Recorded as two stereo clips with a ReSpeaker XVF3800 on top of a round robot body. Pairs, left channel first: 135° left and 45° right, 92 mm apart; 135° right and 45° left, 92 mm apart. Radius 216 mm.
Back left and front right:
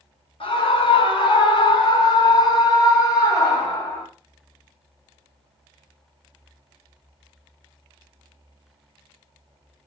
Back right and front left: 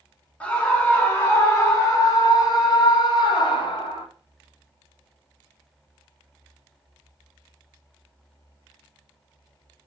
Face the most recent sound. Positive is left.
turn(degrees=-165)